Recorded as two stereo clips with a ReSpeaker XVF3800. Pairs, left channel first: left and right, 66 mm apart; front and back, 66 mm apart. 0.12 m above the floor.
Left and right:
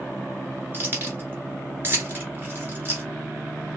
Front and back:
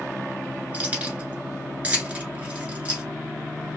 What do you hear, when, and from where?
0.7 s keys jangling: 125° right, 1.3 m